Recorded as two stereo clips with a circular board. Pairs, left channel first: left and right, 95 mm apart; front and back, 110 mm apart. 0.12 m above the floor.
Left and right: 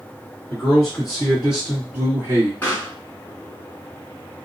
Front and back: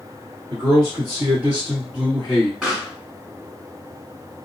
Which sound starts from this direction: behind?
A man speaking, at 0.5 s.